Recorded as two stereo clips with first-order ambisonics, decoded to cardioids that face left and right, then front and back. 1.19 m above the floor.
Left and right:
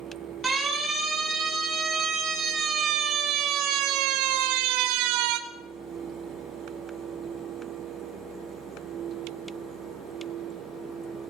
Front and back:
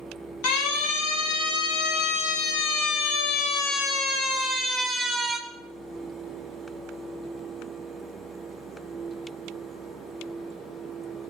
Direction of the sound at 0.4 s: 10° right.